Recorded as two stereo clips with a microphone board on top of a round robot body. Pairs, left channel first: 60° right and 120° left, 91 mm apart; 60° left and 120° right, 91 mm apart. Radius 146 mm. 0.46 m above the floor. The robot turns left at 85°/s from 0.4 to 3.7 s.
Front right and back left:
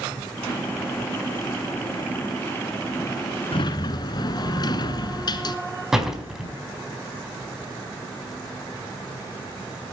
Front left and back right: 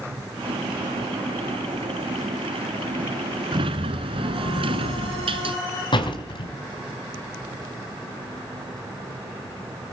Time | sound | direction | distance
3.5 | a sliding door | 90° right | 1.1 m
5.9 | a door slam | 35° left | 4 m